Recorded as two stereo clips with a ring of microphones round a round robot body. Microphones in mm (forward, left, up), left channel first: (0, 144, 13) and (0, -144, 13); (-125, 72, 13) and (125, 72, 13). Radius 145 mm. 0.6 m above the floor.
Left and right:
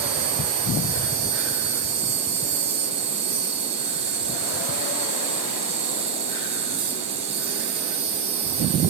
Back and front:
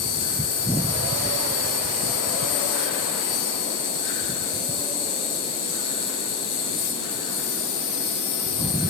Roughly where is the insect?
Behind.